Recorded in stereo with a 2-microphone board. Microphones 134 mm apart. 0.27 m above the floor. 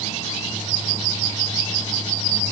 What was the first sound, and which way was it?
Only background noise.